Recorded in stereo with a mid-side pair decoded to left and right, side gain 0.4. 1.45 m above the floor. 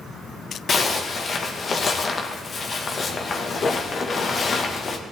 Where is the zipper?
45° left, 2 m.